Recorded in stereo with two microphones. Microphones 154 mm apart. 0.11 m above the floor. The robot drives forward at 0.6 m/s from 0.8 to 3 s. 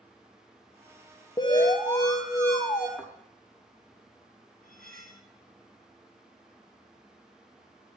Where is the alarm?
30° left (ahead or behind), 1.5 m; by 2.9 s 20° left (ahead or behind), 2 m.